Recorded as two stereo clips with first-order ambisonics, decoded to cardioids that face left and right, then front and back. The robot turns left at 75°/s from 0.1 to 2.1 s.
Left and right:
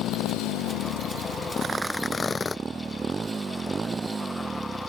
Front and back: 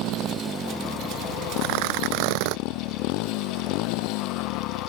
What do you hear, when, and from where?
0.0 s a motorcycle: 135° left; by 4.9 s 15° right
1.6 s tearing paper: 155° right; by 2.6 s 165° left